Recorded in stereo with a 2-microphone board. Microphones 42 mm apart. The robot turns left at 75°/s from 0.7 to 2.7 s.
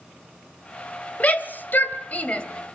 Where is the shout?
40° left (ahead or behind), 2 m; by 2.4 s 25° left (ahead or behind), 2 m.